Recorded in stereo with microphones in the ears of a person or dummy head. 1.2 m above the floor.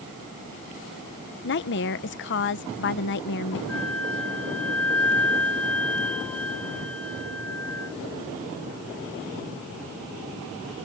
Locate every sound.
1.4 s a woman speaking: 55° left (ahead or behind)
3.7 s a flute: 5° left (ahead or behind)